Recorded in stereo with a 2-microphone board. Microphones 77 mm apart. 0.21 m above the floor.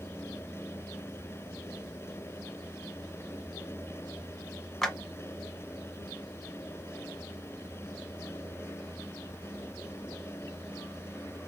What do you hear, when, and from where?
4.8 s a clap: 5° left (ahead or behind), 1.1 m